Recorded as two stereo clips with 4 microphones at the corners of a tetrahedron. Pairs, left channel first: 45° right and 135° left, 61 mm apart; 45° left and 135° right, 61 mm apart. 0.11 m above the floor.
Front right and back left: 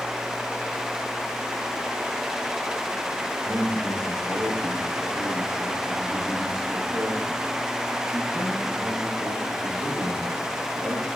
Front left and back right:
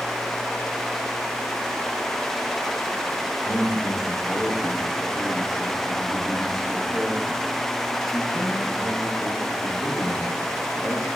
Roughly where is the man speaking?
Behind left.